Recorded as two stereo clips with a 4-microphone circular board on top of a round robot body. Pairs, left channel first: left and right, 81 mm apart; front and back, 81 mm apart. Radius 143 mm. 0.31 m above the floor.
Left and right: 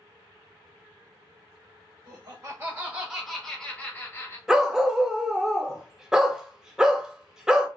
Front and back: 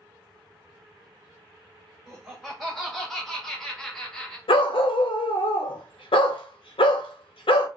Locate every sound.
2.1 s laughter: 95° right, 1.4 m; by 4.4 s 75° left, 1.4 m
4.5 s a dog barking: 5° right, 0.5 m